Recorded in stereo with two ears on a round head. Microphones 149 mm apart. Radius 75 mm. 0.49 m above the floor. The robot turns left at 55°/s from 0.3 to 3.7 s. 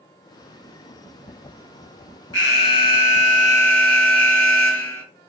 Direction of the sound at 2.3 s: 85° left.